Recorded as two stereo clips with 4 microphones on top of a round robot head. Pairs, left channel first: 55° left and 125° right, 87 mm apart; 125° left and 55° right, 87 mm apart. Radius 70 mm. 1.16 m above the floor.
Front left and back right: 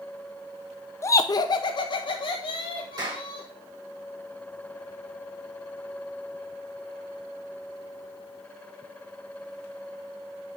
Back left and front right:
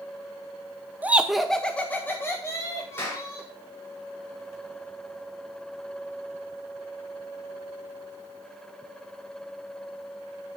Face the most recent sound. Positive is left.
turn(degrees=-170)